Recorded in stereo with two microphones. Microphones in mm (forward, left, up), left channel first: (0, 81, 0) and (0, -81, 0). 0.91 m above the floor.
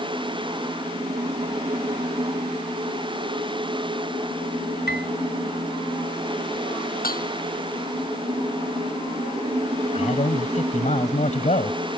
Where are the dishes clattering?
65° left (ahead or behind).